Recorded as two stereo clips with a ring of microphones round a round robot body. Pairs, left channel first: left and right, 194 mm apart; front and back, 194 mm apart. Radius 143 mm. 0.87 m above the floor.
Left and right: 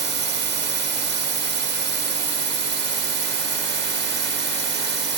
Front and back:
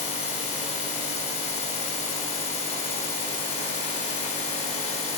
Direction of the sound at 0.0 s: 65° right.